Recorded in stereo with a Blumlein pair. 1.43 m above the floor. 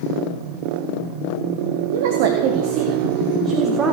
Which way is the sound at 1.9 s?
55° right.